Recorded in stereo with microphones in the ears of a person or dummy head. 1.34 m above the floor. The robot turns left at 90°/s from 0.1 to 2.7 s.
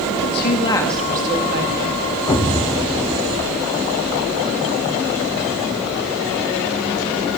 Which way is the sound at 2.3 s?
20° left (ahead or behind).